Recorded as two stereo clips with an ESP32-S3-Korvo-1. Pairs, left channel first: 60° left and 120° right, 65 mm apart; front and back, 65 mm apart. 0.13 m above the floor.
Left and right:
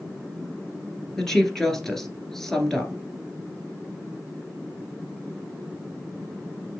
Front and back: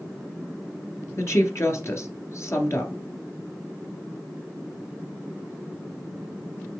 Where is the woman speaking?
20° right, 2 m.